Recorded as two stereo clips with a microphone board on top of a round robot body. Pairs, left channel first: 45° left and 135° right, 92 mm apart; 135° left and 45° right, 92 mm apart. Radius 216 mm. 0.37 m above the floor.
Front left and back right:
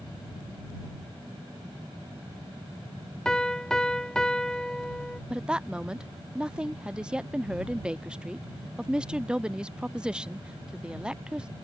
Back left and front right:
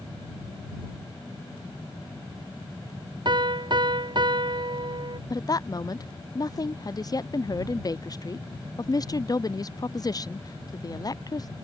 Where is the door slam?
No door slam in this recording.